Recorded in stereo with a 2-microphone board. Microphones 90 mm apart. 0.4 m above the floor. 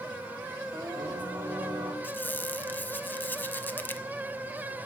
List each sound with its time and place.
0.7 s singing: 55° right (ahead or behind), 1.7 m
2.0 s a squeak: 25° left (ahead or behind), 0.8 m